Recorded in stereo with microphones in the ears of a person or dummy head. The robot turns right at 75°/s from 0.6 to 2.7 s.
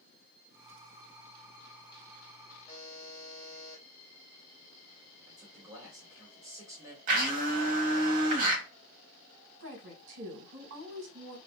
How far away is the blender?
About 1.1 m.